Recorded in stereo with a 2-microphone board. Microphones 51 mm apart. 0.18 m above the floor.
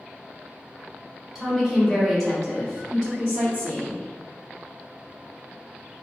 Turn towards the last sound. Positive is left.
turn(degrees=15)  # may be behind; listen again after turning